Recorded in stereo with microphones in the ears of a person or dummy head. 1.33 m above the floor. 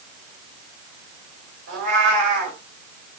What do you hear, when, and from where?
1.7 s a cat meowing: 60° right (ahead or behind), 2.5 m